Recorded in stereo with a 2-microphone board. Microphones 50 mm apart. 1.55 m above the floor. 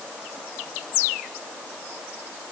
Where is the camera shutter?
I don't hear a camera shutter.